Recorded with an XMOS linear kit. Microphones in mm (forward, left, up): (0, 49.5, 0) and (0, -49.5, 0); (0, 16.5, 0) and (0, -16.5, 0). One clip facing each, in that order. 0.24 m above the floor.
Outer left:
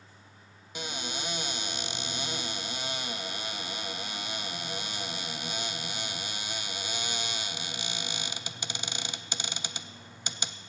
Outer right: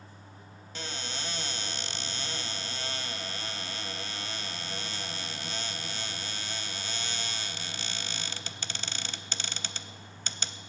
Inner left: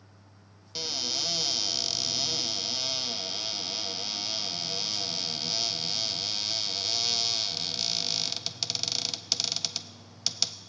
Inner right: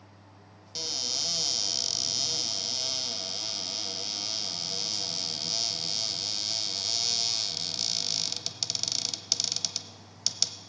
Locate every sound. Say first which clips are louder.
0.8 s a cupboard door: outer left 2 dB, inner left 2 dB; 15° left (ahead or behind), 0.6 m